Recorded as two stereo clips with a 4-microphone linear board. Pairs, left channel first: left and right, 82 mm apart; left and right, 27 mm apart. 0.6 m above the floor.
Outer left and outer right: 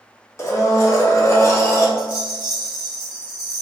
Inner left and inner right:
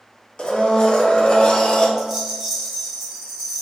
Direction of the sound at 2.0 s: 10° right (ahead or behind).